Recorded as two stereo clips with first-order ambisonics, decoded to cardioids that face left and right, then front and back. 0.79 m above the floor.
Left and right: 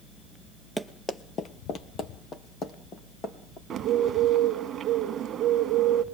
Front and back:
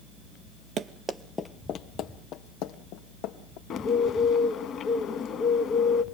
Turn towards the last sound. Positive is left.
turn(degrees=-40)